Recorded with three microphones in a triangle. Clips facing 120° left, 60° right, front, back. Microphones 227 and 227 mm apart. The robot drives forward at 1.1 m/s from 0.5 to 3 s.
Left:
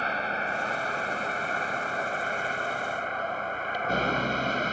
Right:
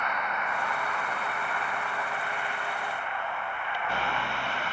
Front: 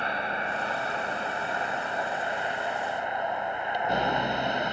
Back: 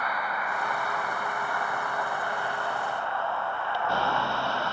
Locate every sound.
0.0 s a vehicle: 65° left; by 4.7 s 70° left